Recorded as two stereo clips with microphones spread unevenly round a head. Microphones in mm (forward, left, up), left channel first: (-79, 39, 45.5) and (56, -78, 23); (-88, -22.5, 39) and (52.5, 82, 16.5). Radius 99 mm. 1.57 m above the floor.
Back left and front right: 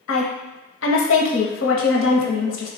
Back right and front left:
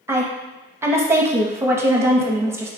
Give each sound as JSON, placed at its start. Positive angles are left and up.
{"t": 0.1, "sound": "a woman speaking", "azimuth_deg": 115, "distance_m": 0.7}